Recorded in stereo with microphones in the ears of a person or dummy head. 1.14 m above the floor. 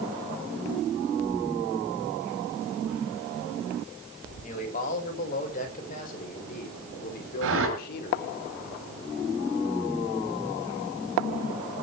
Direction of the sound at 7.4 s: 80° right.